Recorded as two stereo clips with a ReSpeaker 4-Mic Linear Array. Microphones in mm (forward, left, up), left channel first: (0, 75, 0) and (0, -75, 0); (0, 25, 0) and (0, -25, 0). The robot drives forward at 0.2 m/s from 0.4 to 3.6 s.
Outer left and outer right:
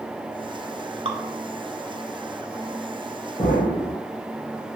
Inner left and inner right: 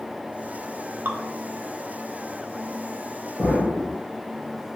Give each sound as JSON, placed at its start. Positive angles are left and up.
{"t": 1.1, "sound": "dripping", "side_deg": -40, "distance_m": 0.6}
{"t": 3.4, "sound": "an explosion", "side_deg": 25, "distance_m": 2.5}